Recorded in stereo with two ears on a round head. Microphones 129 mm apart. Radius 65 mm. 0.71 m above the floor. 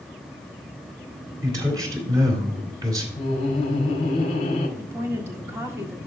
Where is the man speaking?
25° right (ahead or behind), 3 m.